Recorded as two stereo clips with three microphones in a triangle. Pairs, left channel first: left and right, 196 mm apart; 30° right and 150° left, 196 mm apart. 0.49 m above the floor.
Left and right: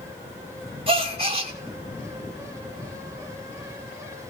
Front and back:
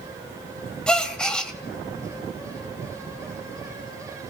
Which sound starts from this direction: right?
A gasp, at 0.9 s.